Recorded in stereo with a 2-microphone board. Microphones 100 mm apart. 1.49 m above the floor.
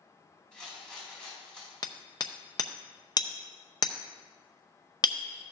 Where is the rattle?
5° left (ahead or behind), 5 m.